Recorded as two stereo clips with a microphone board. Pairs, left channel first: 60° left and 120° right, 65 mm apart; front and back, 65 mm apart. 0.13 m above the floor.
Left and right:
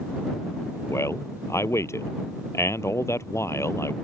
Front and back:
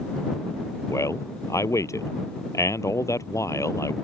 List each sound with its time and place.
0.9 s a man speaking: 25° left